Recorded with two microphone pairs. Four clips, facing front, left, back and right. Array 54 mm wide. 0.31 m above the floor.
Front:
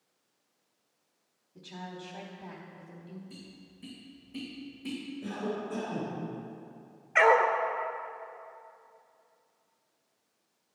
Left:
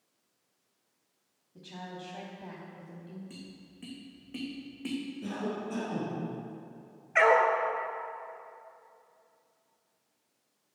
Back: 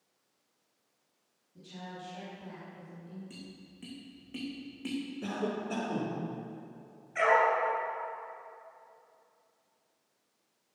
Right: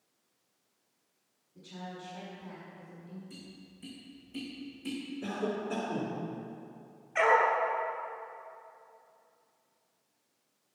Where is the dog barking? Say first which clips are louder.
Left 2 dB, front 3 dB; 35° left, 1.3 m.